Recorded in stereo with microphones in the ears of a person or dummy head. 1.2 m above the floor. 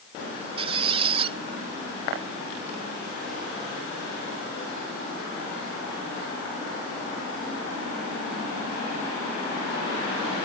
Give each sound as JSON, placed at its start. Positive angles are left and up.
{"t": 0.6, "sound": "a squeak", "side_deg": -35}